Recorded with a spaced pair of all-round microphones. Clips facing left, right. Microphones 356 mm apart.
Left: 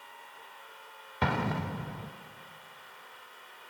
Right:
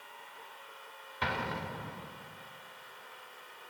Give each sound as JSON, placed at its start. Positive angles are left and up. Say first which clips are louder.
{"t": 1.2, "sound": "an explosion", "louder": "left 6 dB", "side_deg": 60, "distance_m": 0.6}